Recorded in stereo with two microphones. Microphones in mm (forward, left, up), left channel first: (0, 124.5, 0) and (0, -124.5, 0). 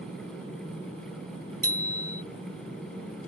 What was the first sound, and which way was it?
A bicycle bell, 70° right (ahead or behind).